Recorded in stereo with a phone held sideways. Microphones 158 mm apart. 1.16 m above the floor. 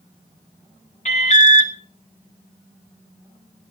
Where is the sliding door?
No sliding door in this recording.